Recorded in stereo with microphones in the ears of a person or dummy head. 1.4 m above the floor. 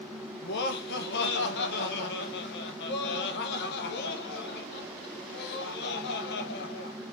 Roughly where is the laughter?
Left.